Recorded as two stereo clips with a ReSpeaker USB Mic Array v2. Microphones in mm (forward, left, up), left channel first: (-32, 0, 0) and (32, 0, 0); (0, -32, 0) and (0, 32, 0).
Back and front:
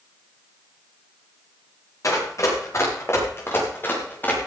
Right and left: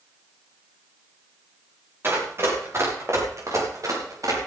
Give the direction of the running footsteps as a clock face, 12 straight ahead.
7 o'clock.